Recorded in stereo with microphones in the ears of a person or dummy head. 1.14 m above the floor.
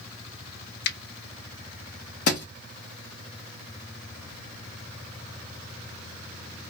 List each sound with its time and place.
0.8 s a finger snap: 55° left (ahead or behind), 0.7 m
2.3 s a thud: 50° left (ahead or behind), 0.8 m